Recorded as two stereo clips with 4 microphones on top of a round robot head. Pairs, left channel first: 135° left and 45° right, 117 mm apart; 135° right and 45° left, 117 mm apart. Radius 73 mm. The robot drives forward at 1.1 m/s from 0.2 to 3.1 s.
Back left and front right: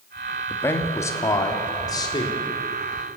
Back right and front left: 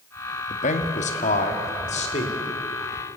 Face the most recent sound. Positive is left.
turn(degrees=-170)